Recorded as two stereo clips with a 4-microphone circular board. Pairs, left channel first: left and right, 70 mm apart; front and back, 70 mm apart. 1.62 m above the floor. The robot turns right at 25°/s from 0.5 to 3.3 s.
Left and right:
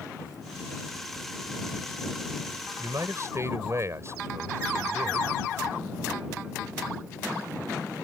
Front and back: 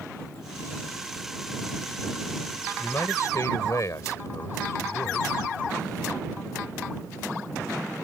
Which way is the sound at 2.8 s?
55° right.